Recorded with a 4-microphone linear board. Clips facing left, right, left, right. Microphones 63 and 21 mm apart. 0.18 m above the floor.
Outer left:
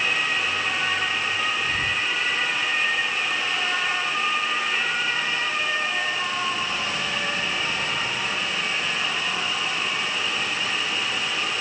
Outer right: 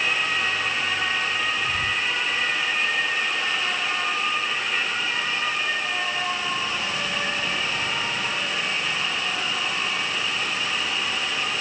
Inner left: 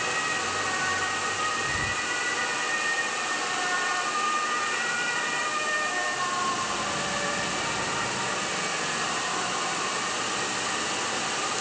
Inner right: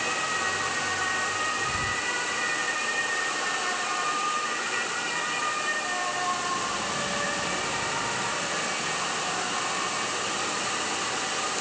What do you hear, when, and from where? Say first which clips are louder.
1.6 s whispering: even, even; 10° right (ahead or behind), 1.5 m